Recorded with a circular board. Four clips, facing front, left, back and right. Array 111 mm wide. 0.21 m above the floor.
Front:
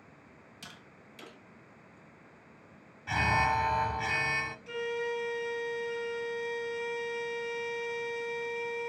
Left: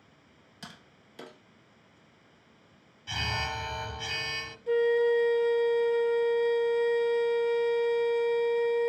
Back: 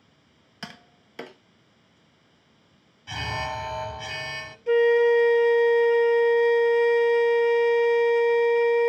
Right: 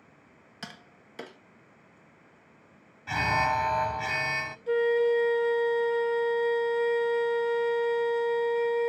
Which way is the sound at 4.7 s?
Straight behind.